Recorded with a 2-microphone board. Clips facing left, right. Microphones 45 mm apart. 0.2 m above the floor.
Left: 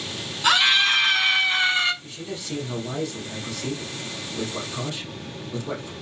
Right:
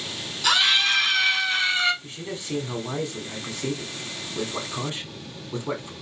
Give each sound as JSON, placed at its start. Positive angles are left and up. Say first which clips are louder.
{"t": 0.4, "sound": "a scream", "louder": "left 2 dB", "side_deg": 25, "distance_m": 2.0}
{"t": 2.0, "sound": "a man speaking", "louder": "even", "side_deg": -30, "distance_m": 1.3}